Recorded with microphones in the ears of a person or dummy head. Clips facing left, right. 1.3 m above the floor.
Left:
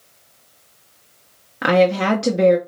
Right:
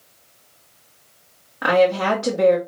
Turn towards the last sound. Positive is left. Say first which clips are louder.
# left 1 dB
turn(degrees=35)  # may be behind; listen again after turning